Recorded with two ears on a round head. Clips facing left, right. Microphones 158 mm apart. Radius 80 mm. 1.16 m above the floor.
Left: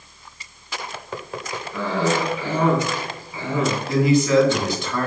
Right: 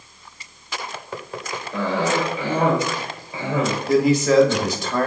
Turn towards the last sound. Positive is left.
turn(degrees=-30)  # may be behind; listen again after turning